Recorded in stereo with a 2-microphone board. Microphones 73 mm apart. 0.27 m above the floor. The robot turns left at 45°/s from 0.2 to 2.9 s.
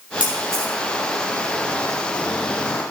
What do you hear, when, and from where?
0.2 s a camera shutter: 20° right (ahead or behind), 3.5 m; by 0.7 s 45° right (ahead or behind), 3.5 m